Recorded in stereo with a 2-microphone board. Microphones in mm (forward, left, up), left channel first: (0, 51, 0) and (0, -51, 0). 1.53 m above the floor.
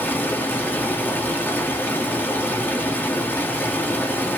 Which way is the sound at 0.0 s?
20° left (ahead or behind).